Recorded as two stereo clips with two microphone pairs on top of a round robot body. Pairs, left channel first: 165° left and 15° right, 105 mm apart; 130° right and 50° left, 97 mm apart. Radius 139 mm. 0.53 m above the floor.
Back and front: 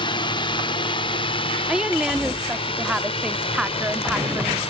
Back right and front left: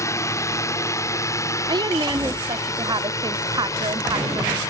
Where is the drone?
175° left.